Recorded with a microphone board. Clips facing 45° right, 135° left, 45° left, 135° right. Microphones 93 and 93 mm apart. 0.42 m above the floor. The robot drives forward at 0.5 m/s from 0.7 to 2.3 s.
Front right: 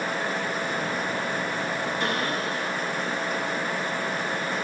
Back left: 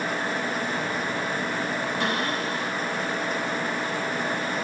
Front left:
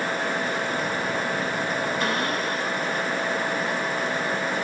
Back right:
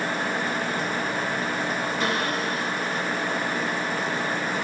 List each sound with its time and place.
2.0 s a cupboard door: 135° left, 3.5 m